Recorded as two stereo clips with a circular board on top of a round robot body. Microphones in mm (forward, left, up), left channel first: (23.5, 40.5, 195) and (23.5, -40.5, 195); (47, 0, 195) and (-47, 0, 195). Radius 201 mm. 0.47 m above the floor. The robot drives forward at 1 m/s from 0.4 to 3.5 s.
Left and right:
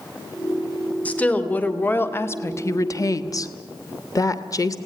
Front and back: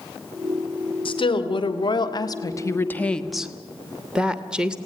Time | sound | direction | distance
1.1 | a woman speaking | 20° left | 2.5 m